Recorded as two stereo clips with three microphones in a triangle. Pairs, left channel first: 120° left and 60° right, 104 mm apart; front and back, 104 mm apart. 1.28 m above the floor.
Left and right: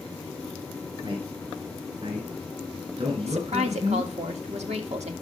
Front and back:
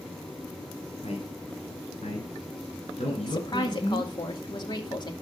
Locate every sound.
1.0 s a man speaking: 20° right, 4 m; by 4.1 s 30° right, 7.5 m
3.2 s a woman speaking: 50° right, 2 m